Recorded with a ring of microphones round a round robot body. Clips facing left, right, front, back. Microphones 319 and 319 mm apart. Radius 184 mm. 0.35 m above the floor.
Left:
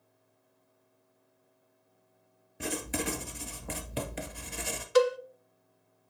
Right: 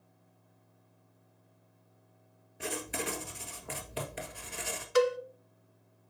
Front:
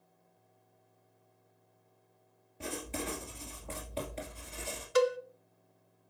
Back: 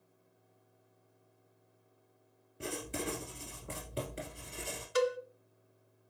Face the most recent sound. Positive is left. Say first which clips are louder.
# left 2 dB, front 3 dB
turn(degrees=45)